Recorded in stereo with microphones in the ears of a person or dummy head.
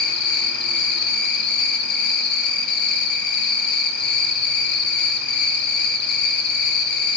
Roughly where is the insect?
Left.